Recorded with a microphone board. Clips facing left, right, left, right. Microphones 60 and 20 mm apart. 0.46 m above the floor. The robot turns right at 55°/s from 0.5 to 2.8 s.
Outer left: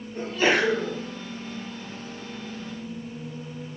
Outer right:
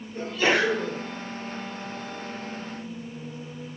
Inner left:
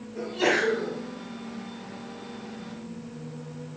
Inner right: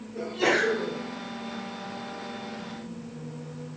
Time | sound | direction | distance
0.1 | a sneeze | 25° left (ahead or behind) | 1.3 m